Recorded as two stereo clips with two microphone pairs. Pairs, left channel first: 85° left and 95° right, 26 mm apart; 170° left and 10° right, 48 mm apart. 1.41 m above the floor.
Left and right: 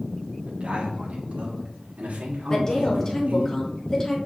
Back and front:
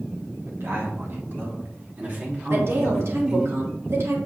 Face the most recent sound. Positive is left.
turn(degrees=20)